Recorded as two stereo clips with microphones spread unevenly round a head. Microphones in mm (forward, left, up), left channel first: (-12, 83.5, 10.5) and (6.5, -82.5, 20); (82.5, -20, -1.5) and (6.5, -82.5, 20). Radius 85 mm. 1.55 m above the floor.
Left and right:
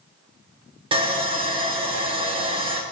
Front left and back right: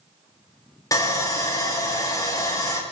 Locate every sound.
0.9 s sawing: 20° right, 1.7 m